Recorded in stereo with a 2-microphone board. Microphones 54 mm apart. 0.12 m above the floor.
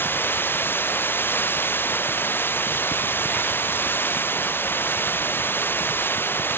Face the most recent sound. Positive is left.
turn(degrees=40)  # may be behind; listen again after turning